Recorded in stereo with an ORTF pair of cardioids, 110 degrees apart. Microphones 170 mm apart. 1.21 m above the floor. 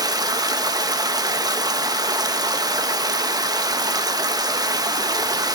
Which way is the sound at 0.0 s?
20° right.